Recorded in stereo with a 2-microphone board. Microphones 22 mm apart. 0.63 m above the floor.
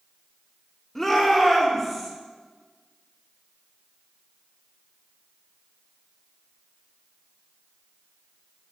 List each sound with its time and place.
0.9 s a shout: 15° left (ahead or behind), 1.3 m; by 2.1 s 5° left (ahead or behind), 2.5 m